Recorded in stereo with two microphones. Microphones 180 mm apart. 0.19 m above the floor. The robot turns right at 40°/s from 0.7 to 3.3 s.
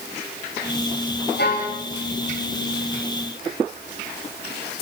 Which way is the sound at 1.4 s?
65° left (ahead or behind).